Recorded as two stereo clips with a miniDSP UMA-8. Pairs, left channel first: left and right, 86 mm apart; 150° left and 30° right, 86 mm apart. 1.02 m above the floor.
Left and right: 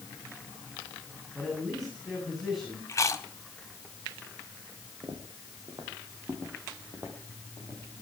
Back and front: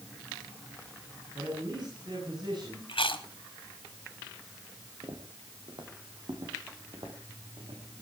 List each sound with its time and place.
1.4 s a man speaking: 5° left, 7.5 m
2.9 s chewing: 145° left, 2 m
5.0 s footsteps: 65° right, 3 m; by 8.0 s 25° right, 6 m